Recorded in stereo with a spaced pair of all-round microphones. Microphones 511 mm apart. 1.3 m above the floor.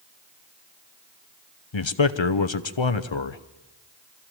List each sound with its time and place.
1.7 s a man speaking: 60° left (ahead or behind), 0.9 m